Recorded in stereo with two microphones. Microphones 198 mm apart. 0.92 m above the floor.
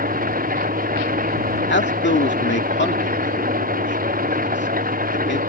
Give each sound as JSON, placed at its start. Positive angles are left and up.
{"t": 0.0, "sound": "an engine running", "side_deg": -45}
{"t": 1.7, "sound": "a man speaking", "side_deg": 65}